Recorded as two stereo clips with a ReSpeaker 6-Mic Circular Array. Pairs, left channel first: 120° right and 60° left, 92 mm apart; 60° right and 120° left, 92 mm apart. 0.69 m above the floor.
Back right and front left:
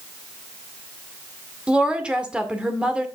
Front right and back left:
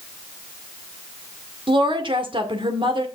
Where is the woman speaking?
140° left, 1.9 m.